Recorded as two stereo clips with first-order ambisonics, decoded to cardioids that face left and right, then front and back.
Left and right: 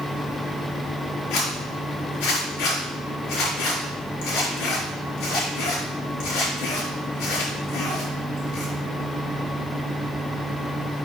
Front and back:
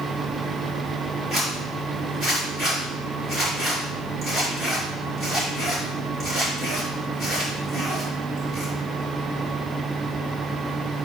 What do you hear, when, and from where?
1.3 s a zipper: 105° left, 4.5 m